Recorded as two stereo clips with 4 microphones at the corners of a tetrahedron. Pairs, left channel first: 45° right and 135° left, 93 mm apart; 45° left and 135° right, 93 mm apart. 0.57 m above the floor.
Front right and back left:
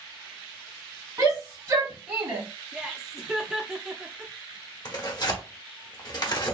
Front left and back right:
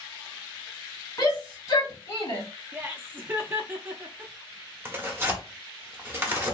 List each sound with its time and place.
1.2 s a shout: 85° left, 2.0 m; by 2.4 s 55° left, 1.6 m
2.7 s laughter: 160° right, 0.6 m
4.8 s tearing paper: 75° right, 0.9 m